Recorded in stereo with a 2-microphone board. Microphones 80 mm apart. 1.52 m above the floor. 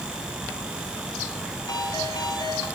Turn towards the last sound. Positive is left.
turn(degrees=60)  # may be behind; listen again after turning